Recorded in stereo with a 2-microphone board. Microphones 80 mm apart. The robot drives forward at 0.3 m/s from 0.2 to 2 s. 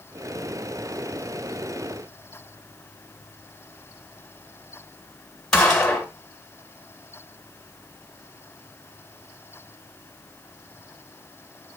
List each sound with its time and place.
5.5 s a gunshot: 5° left (ahead or behind), 1.8 m